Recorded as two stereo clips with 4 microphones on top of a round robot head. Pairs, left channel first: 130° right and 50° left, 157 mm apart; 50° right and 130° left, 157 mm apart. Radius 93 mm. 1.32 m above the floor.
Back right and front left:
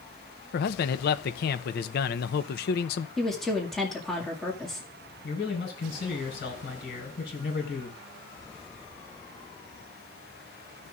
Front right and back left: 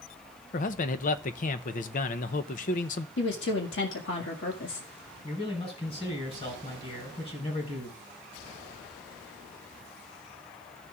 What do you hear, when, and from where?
0.5 s a man speaking: 95° right, 0.6 m
3.2 s a woman speaking: 40° right, 1.9 m
5.2 s a man speaking: 105° right, 4.5 m